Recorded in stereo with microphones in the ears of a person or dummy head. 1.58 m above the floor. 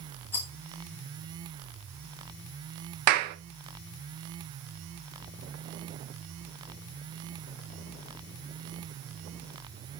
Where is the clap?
55° right (ahead or behind), 1.2 m.